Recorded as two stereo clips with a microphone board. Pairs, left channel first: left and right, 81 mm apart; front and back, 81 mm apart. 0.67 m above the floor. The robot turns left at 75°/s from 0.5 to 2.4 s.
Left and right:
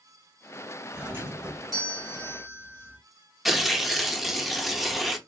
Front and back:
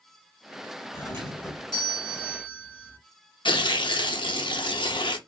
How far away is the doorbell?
About 2.0 m.